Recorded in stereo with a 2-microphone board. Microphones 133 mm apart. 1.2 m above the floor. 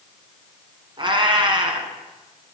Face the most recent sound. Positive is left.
turn(degrees=-40)  # may be behind; listen again after turning